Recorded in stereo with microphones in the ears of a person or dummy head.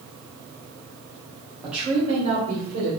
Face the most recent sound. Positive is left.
turn(degrees=-55)  # may be behind; listen again after turning